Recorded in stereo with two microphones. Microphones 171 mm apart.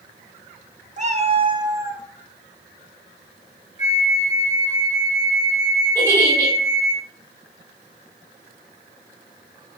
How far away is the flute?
About 1.6 m.